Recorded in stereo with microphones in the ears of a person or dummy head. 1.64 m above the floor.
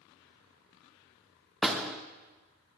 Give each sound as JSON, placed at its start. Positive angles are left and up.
{"t": 1.6, "sound": "a door slam", "side_deg": -5, "distance_m": 1.4}